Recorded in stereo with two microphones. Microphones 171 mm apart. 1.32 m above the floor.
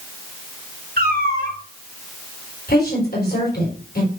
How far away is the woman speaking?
About 4 m.